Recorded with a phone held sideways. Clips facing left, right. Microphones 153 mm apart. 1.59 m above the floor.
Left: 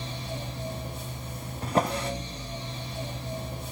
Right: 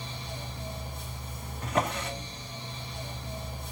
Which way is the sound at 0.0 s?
80° left.